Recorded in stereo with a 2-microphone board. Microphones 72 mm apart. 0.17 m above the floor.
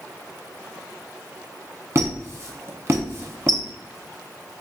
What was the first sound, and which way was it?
A squeak, 40° right (ahead or behind).